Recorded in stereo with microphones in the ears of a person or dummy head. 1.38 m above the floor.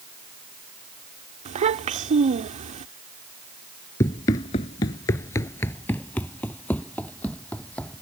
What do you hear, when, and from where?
1.4 s a child speaking: 35° right (ahead or behind)
4.0 s running footsteps: 15° left (ahead or behind); by 8.0 s 5° left (ahead or behind)